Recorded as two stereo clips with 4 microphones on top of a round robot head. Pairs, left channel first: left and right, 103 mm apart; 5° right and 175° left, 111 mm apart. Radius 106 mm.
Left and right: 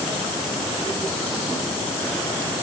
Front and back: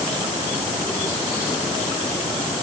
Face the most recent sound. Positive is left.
No sound to turn to.